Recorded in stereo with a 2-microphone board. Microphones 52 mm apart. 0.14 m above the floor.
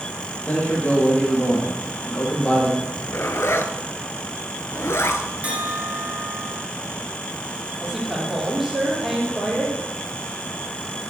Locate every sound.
0.5 s a man speaking: 30° left (ahead or behind), 4 m
2.8 s a zipper: 60° left (ahead or behind), 0.8 m
5.4 s a bell: 30° right (ahead or behind), 2 m
7.8 s a woman speaking: 5° right (ahead or behind), 5 m